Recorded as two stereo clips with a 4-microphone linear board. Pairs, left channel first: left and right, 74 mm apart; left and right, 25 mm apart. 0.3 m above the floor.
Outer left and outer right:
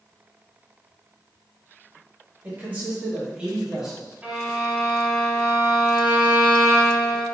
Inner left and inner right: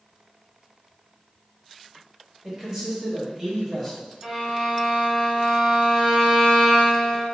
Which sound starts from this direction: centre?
A violin, at 4.2 s.